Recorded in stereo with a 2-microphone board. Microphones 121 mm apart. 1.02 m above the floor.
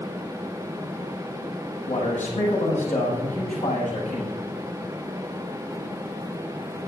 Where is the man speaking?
85° left, 8.5 m.